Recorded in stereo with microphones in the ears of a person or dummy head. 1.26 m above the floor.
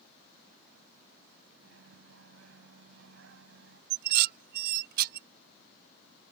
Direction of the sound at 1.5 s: 65° right (ahead or behind).